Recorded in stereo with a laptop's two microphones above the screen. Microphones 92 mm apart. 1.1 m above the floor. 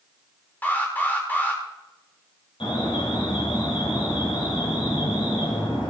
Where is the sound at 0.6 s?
20° left (ahead or behind), 3.5 m.